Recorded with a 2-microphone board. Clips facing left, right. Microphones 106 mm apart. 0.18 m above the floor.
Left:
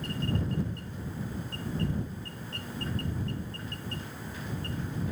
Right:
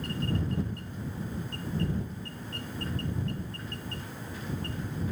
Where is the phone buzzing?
No phone buzzing in this recording.